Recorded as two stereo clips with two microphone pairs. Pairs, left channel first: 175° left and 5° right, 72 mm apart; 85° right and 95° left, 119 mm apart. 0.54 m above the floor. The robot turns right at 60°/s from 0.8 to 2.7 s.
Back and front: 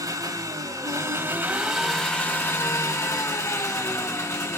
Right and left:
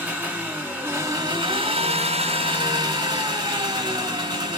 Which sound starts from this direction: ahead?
An engine running, at 0.0 s.